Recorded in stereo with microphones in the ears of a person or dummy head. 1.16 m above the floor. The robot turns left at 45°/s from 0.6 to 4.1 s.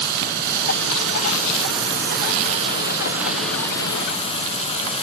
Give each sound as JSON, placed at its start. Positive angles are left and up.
{"t": 0.0, "sound": "running water", "azimuth_deg": -55, "distance_m": 5.5}